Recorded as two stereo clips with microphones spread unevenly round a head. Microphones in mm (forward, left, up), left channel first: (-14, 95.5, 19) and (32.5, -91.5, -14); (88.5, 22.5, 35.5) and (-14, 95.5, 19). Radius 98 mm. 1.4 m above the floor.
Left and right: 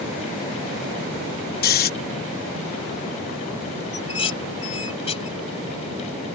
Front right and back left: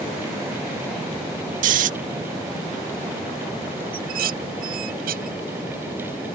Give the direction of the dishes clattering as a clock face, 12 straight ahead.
6 o'clock.